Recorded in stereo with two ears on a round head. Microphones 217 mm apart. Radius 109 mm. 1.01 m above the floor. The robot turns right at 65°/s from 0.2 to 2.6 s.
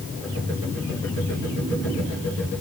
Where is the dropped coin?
No dropped coin in this recording.